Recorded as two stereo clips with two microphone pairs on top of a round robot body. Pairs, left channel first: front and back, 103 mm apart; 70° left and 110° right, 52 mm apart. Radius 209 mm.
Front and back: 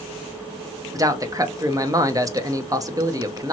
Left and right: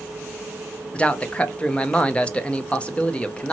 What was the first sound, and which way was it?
A man speaking, 145° left.